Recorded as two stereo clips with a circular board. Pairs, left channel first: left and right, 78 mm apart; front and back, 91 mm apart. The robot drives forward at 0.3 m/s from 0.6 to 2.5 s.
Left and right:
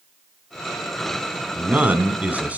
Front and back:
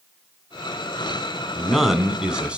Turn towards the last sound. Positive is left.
turn(degrees=-125)